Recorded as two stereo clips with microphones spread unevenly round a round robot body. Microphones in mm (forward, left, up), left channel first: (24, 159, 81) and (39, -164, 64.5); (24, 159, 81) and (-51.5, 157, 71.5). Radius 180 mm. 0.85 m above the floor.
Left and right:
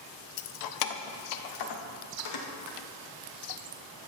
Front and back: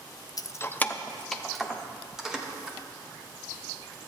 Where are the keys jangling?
50° left, 0.6 m; by 2.8 s 100° left, 2.5 m.